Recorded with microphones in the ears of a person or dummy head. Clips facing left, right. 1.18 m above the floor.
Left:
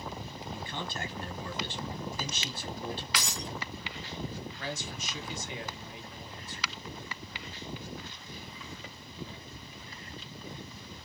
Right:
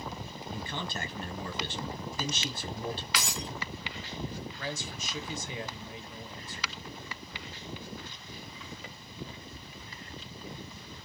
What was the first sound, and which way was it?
A man speaking, 50° right (ahead or behind).